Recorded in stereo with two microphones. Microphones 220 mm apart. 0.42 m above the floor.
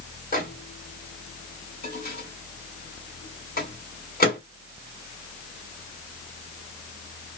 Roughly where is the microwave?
Left.